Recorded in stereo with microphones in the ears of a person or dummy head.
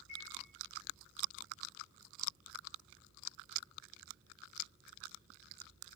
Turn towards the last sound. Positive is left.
turn(degrees=-5)  # may be behind; listen again after turning